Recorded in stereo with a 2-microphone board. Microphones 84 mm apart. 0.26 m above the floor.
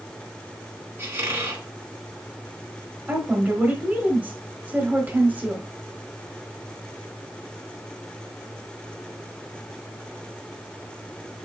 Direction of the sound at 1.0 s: 30° right (ahead or behind).